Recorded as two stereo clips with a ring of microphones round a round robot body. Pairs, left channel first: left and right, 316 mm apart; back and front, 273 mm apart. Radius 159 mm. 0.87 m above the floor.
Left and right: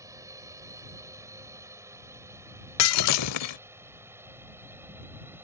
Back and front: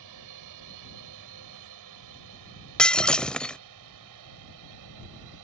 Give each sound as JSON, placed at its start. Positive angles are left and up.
{"t": 0.0, "sound": "a drone", "azimuth_deg": -10}
{"t": 2.8, "sound": "breaking glass", "azimuth_deg": 95}